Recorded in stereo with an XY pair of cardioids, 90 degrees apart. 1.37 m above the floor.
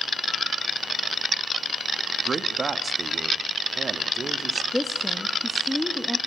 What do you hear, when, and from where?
2.2 s a man speaking: 40° right, 1.8 m; by 4.6 s 45° right, 3 m
4.7 s a woman speaking: 5° left, 1.7 m